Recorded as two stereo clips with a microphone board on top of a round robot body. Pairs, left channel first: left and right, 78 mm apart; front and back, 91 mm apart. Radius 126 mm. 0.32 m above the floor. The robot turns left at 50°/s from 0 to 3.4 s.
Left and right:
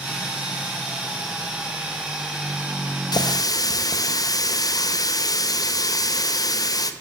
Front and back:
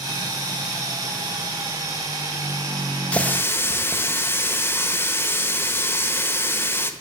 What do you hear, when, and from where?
3.1 s a running tap: 75° left, 1.1 m; by 6.9 s 60° left, 1.1 m